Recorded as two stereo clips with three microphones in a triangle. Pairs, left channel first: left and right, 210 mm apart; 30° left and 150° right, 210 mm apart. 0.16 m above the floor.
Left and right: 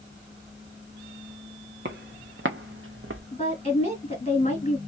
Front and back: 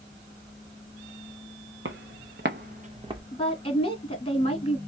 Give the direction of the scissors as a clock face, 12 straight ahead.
No scissors in this recording.